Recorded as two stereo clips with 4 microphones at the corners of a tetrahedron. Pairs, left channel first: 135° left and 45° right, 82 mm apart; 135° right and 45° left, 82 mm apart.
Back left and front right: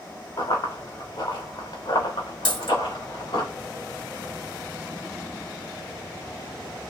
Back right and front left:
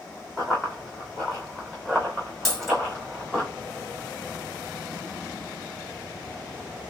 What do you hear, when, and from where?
0.4 s running footsteps: 135° left, 2 m; by 3.5 s 140° left, 4 m
2.5 s a dropped coin: 140° left, 2 m